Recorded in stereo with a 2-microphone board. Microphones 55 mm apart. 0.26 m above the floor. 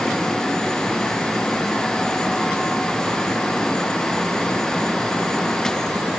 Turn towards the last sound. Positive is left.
No sound to turn to.